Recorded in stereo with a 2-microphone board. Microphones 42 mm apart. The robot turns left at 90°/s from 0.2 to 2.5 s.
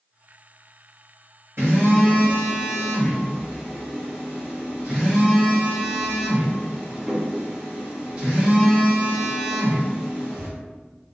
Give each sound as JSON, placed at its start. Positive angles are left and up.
{"t": 1.6, "sound": "a phone buzzing", "azimuth_deg": -75, "distance_m": 1.2}